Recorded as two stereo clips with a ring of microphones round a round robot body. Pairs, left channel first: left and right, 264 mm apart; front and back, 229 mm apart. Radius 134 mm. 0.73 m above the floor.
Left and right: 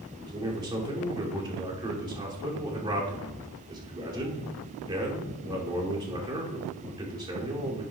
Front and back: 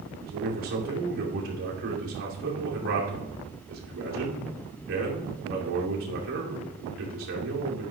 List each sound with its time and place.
0.2 s a man speaking: 160° right, 2.5 m